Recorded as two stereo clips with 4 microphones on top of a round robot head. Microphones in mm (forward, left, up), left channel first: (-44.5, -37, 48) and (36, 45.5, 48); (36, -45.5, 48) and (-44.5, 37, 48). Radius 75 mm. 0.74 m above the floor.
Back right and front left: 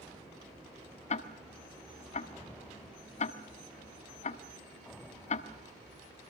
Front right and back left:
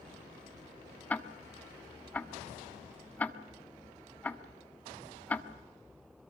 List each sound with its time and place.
1.1 s ticking: 120° right, 1.2 m